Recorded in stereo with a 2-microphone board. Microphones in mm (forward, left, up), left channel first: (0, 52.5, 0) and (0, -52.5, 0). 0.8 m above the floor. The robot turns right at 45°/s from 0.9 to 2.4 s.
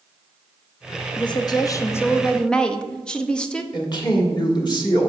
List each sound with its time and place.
1.2 s a woman speaking: 115° left, 0.7 m; by 3.6 s 170° left, 0.7 m
3.7 s a woman speaking: 45° left (ahead or behind), 1.4 m